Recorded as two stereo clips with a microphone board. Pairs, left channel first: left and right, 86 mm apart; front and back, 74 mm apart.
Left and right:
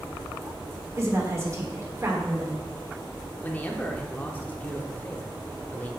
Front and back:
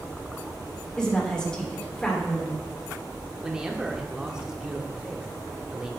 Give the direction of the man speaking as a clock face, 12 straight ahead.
8 o'clock.